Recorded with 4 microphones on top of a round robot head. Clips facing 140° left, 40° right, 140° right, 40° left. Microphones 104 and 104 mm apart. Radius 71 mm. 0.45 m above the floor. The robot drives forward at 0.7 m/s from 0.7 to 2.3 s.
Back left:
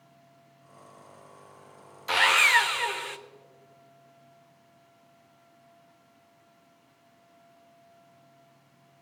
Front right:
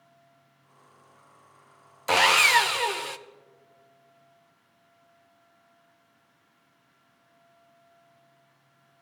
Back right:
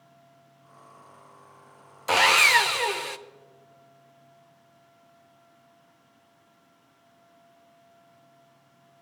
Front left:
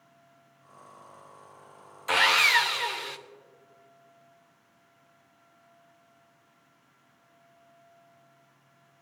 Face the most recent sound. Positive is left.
turn(degrees=-100)